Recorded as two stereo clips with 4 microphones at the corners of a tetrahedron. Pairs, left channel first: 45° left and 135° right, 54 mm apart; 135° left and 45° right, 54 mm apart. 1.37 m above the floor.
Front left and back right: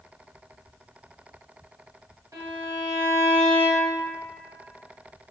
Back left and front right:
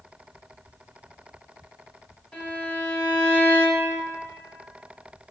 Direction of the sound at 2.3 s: 155° right.